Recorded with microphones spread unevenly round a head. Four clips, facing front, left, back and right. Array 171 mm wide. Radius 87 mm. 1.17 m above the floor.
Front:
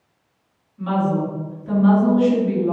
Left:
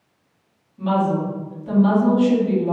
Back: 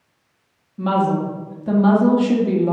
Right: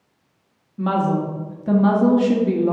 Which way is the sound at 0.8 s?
135° right.